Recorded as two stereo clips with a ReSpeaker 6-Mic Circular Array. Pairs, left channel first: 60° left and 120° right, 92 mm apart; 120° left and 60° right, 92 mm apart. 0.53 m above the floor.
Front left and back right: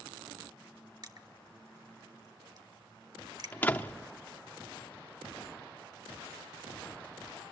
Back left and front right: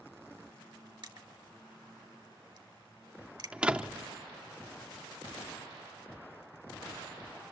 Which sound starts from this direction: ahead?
A door slam, at 3.5 s.